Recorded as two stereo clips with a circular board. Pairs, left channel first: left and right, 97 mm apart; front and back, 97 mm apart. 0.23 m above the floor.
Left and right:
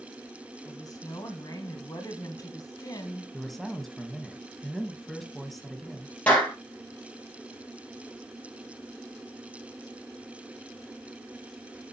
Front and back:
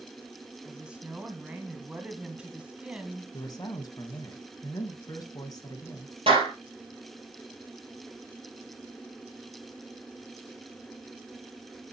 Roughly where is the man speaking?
Ahead.